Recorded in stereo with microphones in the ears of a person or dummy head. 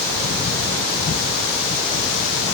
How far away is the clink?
I don't hear a clink.